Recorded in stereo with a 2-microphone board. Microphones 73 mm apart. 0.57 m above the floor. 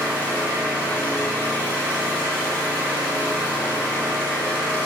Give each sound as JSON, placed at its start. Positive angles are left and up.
{"t": 0.0, "sound": "an engine running", "side_deg": 20, "distance_m": 0.9}